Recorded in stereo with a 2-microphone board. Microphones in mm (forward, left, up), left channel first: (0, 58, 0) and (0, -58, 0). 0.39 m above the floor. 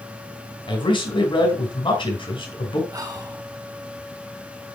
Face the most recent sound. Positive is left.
turn(degrees=-30)  # may be behind; listen again after turning